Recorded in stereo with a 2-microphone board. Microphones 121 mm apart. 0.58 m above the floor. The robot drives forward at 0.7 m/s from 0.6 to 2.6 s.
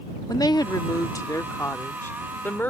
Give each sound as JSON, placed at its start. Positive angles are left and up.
{"t": 0.3, "sound": "a woman speaking", "side_deg": 30}